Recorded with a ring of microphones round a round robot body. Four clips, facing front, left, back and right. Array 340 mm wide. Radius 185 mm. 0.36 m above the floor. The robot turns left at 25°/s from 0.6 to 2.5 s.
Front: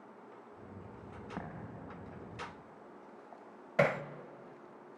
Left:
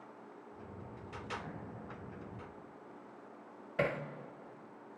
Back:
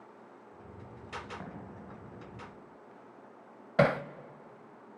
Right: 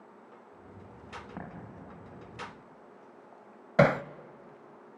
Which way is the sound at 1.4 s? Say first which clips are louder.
Right 2 dB, even; 40° right.